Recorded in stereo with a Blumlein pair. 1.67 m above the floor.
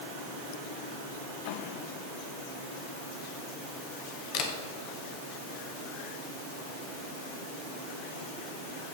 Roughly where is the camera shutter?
Ahead left.